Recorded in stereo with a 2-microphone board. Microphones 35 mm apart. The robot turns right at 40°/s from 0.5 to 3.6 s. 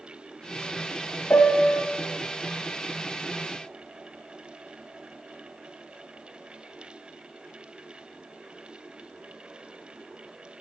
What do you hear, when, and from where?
1.3 s a piano: 65° left (ahead or behind), 0.7 m